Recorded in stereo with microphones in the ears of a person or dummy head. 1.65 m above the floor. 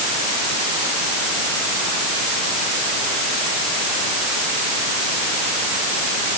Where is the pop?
I don't hear a pop.